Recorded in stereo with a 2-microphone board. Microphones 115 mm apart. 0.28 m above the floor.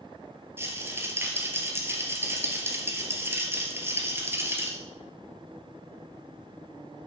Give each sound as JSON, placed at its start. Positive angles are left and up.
{"t": 0.6, "sound": "a rattle", "side_deg": -20, "distance_m": 2.5}